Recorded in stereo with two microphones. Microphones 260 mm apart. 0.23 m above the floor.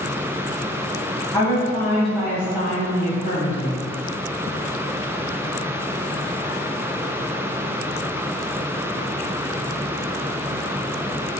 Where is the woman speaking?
15° left (ahead or behind), 1.1 m; by 3.8 s 35° right (ahead or behind), 1.3 m.